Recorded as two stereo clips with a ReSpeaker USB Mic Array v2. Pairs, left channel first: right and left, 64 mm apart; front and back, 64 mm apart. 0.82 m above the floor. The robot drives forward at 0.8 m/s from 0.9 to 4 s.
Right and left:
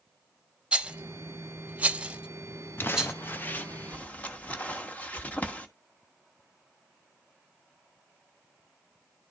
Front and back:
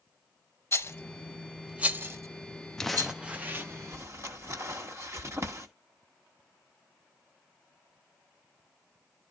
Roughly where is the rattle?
Ahead left.